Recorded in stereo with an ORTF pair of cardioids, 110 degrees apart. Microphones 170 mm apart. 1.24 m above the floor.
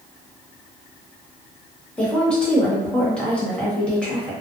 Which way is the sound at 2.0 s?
5° left.